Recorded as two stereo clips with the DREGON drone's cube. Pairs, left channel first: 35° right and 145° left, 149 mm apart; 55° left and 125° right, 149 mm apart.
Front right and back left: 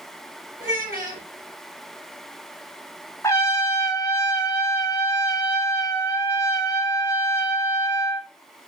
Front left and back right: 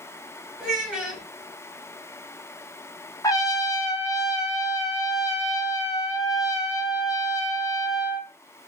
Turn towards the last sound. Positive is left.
turn(degrees=15)